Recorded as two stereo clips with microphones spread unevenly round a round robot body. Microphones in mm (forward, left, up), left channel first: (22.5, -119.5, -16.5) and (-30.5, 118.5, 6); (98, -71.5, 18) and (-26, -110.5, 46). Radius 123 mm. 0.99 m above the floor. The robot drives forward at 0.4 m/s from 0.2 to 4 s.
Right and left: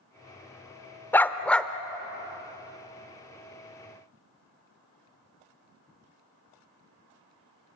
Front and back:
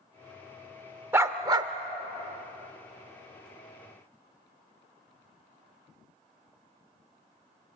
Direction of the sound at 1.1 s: 160° right.